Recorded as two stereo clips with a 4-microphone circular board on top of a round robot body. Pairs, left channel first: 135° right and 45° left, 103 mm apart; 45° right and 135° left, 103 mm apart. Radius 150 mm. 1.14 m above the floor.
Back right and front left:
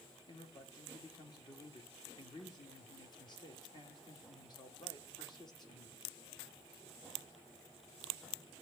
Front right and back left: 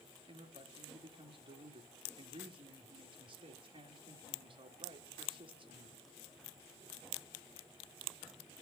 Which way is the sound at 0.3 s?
175° left.